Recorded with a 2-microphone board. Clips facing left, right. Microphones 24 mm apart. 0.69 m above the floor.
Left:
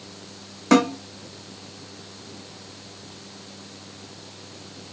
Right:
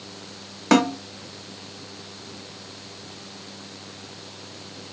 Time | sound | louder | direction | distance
0.7 | a snare drum | even | 20° right (ahead or behind) | 1.1 m